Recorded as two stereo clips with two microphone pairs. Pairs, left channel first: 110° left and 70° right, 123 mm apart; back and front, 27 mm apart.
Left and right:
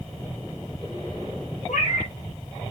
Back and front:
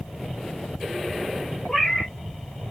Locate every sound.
1.7 s a cat meowing: 110° left, 1.7 m